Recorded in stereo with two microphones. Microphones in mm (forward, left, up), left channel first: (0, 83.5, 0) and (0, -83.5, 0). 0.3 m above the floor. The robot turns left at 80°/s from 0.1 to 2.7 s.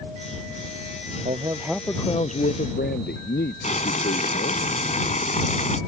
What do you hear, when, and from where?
1.2 s a man speaking: 140° right; by 4.6 s 105° left
3.6 s boiling: 45° left (ahead or behind)